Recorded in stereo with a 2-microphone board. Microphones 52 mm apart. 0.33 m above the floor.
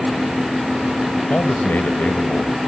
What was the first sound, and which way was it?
A man speaking, 35° left (ahead or behind).